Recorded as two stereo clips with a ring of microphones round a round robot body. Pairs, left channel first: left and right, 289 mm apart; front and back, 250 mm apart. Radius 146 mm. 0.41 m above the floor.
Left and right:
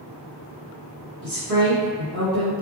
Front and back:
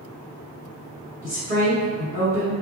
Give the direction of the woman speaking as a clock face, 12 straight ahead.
4 o'clock.